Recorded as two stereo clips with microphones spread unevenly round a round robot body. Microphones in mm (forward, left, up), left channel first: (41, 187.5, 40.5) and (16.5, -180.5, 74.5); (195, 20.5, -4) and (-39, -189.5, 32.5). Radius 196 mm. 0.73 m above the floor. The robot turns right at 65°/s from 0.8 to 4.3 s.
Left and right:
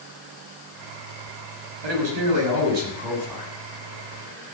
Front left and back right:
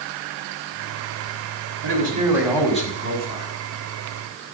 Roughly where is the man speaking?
Right.